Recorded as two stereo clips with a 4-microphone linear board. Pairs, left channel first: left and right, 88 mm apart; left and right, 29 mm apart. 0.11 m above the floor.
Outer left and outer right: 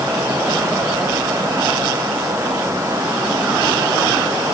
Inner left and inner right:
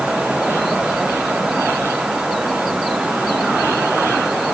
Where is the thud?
I don't hear a thud.